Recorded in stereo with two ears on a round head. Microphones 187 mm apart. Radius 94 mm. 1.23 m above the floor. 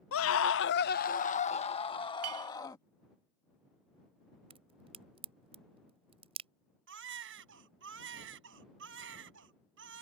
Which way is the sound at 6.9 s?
65° right (ahead or behind).